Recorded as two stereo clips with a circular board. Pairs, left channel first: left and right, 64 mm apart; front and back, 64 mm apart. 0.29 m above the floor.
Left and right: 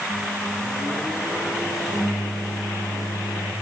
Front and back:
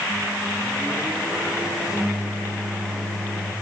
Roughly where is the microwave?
Left.